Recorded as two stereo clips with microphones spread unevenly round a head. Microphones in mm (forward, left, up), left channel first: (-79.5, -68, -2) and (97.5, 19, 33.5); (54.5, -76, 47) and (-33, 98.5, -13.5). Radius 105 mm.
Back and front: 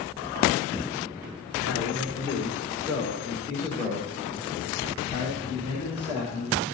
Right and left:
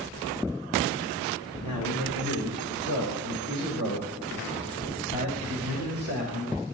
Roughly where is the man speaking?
Right.